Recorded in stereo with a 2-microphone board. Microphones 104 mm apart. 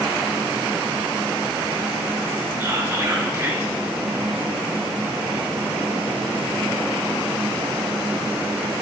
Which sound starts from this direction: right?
Whispering, at 2.6 s.